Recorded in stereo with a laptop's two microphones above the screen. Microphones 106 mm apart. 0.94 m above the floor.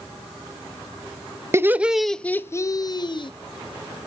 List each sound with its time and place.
1.5 s laughter: 25° right (ahead or behind), 0.6 m; by 3.3 s 50° left (ahead or behind), 0.9 m